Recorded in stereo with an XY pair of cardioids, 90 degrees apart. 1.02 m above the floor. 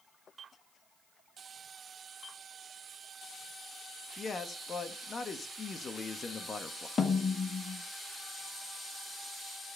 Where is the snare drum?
45° left, 0.8 m.